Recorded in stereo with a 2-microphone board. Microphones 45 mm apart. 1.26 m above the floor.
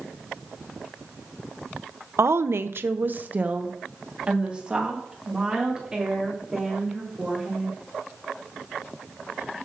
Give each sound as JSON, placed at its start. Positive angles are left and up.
{"t": 2.2, "sound": "a woman speaking", "side_deg": -75, "distance_m": 0.5}